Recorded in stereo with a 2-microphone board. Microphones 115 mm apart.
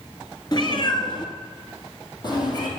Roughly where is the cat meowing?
Left.